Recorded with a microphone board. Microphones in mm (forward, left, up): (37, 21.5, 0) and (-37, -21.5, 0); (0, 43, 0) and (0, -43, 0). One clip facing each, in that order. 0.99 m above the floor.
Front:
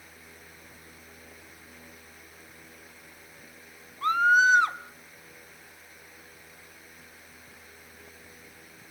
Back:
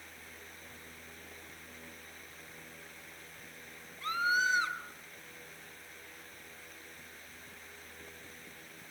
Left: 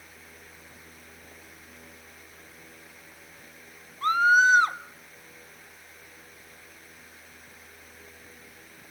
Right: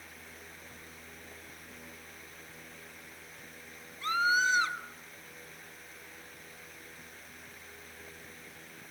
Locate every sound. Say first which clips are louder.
4.0 s a scream: front 10 dB, left 8 dB; 60° left, 1.4 m